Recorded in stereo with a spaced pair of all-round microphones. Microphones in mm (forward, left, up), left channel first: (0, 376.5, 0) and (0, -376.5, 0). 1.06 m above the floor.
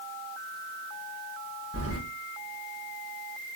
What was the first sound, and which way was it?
Keys jangling, 20° right (ahead or behind).